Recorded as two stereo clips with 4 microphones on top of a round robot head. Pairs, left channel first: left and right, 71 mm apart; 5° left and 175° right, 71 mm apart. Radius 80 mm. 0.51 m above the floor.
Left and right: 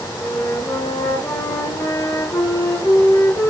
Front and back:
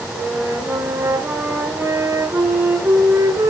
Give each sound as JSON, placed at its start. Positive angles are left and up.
{"t": 0.1, "sound": "a flute", "azimuth_deg": 140, "distance_m": 2.5}